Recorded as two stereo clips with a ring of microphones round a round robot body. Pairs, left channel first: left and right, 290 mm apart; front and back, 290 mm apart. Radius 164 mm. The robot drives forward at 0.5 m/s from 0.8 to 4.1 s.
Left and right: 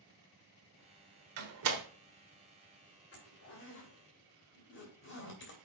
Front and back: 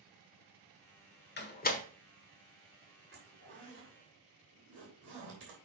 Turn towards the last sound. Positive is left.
turn(degrees=135)